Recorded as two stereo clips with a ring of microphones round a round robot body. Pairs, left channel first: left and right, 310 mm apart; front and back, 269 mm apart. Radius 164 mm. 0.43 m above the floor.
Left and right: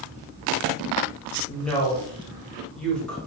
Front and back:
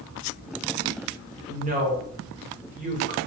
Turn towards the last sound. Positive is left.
turn(degrees=175)